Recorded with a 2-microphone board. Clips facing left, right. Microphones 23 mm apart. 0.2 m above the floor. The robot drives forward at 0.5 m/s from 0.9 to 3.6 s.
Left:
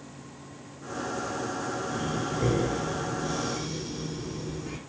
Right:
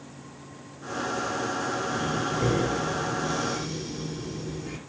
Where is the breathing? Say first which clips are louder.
Right 3 dB; 15° right (ahead or behind), 1.2 m; by 4.8 s 10° right (ahead or behind), 1.9 m.